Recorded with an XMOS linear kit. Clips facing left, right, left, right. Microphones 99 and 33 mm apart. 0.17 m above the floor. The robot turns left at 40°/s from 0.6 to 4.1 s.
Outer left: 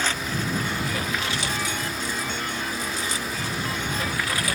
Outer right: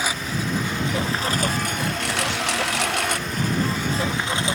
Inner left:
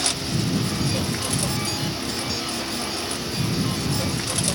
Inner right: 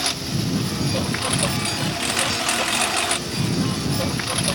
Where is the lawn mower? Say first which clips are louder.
Outer right 1 dB, even; 10° right (ahead or behind); by 4.5 s 20° right (ahead or behind).